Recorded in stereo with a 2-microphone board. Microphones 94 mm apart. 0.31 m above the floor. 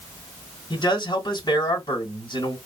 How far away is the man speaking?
About 2.5 m.